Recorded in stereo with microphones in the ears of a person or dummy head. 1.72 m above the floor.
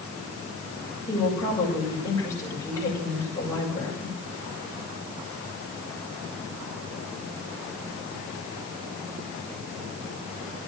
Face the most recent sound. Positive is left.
turn(degrees=15)  # may be behind; listen again after turning